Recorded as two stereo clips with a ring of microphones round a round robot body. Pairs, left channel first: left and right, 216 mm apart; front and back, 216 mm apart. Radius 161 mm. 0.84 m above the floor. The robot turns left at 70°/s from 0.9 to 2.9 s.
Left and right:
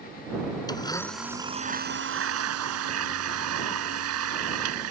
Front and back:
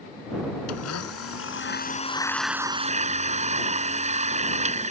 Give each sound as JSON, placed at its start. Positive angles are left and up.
{"t": 0.7, "sound": "a blender", "azimuth_deg": 20}